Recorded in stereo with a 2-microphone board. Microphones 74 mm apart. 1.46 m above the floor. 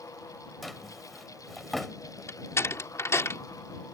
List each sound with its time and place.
0.6 s a drawer: centre (ahead or behind)
2.3 s a door slam: 40° left (ahead or behind)